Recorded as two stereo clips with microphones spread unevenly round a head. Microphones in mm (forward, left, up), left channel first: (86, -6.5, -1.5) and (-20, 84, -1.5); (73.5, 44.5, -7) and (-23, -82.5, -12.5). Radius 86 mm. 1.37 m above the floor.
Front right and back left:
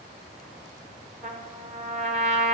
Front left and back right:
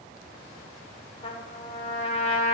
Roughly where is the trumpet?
Left.